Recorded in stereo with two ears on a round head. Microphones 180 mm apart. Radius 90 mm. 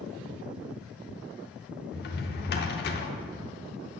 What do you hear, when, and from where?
1.9 s a drawer: 55° left (ahead or behind), 1.0 m